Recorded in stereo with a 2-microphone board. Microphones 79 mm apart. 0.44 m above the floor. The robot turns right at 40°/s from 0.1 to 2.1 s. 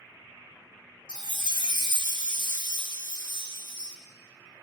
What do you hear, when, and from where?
1.1 s a chime: 65° left, 2.0 m; by 4.0 s 105° left, 2.0 m